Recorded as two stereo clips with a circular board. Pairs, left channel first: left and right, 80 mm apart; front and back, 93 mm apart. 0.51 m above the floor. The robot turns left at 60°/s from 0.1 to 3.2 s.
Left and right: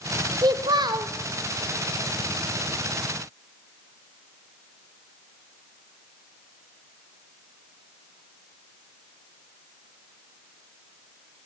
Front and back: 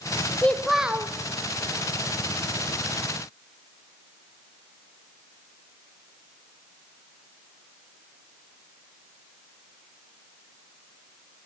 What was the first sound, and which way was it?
A child speaking, 75° right.